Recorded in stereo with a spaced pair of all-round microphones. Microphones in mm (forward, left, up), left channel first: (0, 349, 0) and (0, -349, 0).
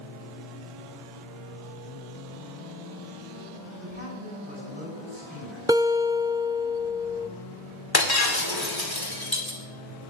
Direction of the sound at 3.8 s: 10° right (ahead or behind).